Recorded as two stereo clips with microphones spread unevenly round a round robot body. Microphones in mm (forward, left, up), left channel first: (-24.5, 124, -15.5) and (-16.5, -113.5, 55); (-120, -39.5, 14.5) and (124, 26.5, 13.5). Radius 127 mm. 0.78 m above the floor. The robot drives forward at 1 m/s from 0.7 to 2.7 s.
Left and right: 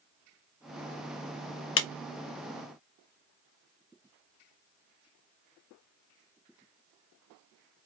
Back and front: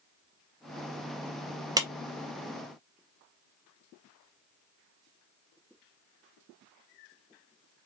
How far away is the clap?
About 0.6 m.